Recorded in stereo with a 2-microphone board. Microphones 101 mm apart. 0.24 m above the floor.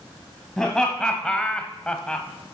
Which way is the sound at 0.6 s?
5° left (ahead or behind).